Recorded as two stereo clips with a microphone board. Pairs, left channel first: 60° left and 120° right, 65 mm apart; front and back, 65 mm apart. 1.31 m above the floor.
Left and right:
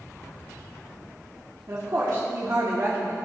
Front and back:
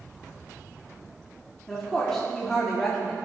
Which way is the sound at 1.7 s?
80° right.